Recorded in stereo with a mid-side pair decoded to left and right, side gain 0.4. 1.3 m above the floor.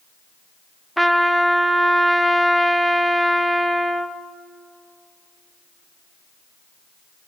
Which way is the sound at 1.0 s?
5° right.